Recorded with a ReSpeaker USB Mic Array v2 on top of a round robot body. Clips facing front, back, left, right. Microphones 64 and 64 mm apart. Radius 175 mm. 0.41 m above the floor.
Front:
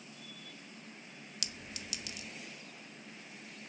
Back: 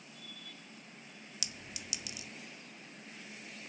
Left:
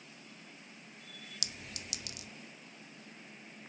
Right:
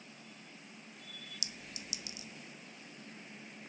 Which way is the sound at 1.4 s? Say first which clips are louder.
Front 1 dB, left 2 dB; 95° left.